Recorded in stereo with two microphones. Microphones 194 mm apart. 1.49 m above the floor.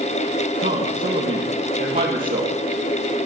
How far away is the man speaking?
About 2.5 m.